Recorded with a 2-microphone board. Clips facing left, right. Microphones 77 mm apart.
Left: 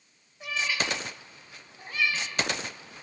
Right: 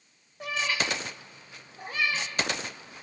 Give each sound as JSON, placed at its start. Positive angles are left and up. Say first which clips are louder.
{"t": 0.4, "sound": "a cat meowing", "louder": "right 1 dB", "side_deg": -90, "distance_m": 7.5}